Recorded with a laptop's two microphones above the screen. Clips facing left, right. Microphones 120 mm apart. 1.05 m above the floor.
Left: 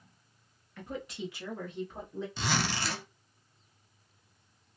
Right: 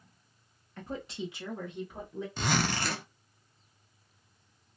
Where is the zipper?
50° right (ahead or behind), 0.6 m.